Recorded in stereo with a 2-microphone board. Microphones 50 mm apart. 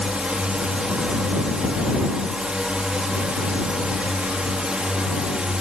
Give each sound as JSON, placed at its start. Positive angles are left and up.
{"t": 0.0, "sound": "a drone", "side_deg": -20}